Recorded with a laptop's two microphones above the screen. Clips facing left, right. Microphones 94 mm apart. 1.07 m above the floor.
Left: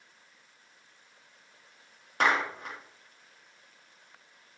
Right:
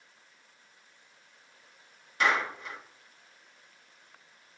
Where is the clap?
50° left (ahead or behind), 2 m.